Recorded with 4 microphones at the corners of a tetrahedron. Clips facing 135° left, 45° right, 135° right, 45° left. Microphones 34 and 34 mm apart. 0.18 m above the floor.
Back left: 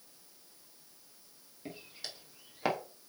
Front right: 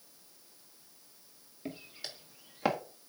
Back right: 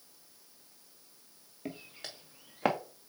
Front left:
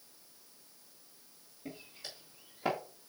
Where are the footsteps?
125° right, 3 m; by 2.8 s 130° right, 2 m.